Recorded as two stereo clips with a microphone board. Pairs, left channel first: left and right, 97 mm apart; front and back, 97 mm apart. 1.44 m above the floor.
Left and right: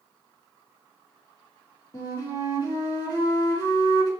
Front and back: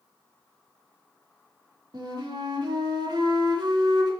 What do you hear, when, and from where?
1.9 s a flute: 135° left, 2.5 m